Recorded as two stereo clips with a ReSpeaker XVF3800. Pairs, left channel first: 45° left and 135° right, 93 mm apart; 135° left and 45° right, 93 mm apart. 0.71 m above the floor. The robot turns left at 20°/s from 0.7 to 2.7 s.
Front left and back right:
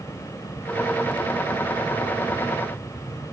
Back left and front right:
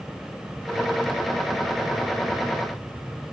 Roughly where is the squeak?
No squeak in this recording.